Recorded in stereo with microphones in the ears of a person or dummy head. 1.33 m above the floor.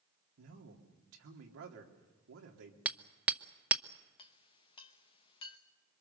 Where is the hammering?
5° right (ahead or behind), 0.8 m.